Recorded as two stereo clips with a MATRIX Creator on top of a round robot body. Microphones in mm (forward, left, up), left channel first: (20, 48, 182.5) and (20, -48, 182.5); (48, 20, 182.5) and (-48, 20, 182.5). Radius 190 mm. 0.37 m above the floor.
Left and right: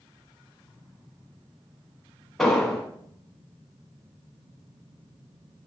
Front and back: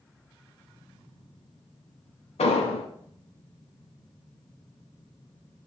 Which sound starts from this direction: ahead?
An explosion, at 2.4 s.